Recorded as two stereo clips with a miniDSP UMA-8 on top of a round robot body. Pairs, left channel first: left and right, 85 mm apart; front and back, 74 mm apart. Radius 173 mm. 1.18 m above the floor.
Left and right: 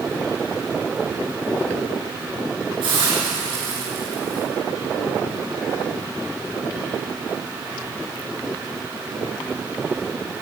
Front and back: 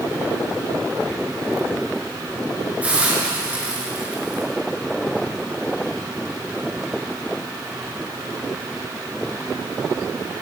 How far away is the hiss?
About 8 m.